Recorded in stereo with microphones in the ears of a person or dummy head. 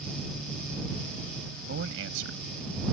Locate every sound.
1.7 s a man speaking: 70° right (ahead or behind); by 2.8 s 65° right (ahead or behind)